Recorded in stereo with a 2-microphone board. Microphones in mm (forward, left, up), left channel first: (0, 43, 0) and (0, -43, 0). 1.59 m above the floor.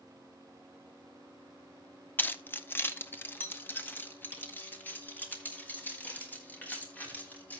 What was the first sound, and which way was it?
Keys jangling, 20° left (ahead or behind).